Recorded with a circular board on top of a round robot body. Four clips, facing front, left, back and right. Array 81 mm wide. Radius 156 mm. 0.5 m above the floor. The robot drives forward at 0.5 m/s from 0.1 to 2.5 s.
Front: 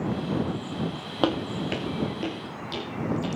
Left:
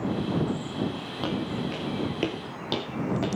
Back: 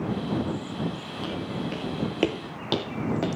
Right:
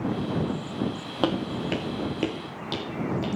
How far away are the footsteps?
About 1.1 m.